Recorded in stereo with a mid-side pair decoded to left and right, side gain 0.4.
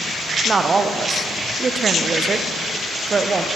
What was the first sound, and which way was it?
A woman speaking, 45° right.